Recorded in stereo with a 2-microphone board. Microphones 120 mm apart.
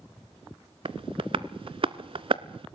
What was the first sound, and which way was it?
Tapping, 55° right (ahead or behind).